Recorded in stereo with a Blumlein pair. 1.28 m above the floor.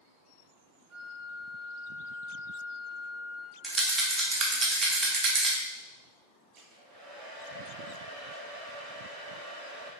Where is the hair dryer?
25° right, 1.7 m.